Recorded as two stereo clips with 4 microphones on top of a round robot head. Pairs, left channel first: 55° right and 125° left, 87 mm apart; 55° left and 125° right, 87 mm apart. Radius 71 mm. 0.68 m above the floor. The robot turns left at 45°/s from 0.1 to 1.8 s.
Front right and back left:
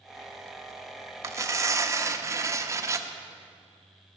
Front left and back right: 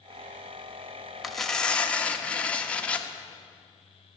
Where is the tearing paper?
145° left, 1.0 m; by 3.1 s 120° left, 1.0 m.